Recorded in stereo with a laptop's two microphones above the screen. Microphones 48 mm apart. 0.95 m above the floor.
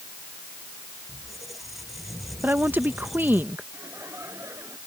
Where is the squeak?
Centre (ahead or behind).